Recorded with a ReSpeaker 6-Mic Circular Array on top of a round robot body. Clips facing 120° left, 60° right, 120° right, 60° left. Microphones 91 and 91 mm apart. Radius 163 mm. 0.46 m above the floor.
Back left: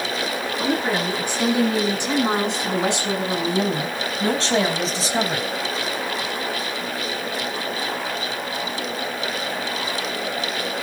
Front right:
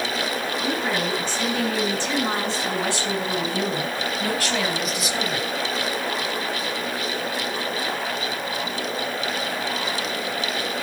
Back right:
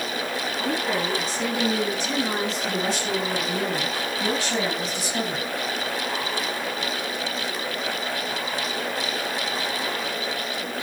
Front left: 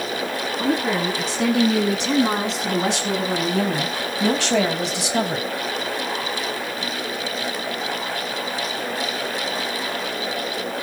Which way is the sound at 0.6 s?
45° left.